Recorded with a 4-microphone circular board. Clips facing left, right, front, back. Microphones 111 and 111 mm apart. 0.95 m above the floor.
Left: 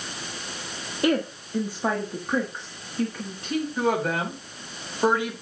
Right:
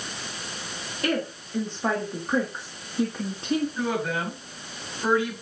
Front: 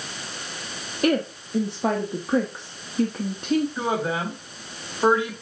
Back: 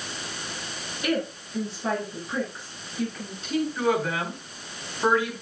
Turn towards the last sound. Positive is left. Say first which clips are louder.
# left 3 dB, back 1 dB
turn(degrees=65)